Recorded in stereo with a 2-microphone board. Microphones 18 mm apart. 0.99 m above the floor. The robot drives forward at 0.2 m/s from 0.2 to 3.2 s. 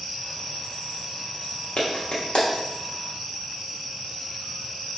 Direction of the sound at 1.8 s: 85° left.